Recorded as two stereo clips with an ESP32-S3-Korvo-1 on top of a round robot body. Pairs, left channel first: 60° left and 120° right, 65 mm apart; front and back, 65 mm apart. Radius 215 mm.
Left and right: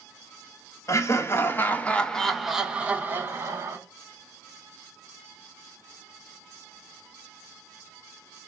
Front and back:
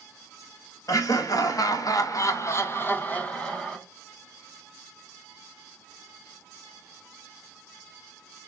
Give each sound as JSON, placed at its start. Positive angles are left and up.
{"t": 0.9, "sound": "laughter", "azimuth_deg": 25, "distance_m": 1.1}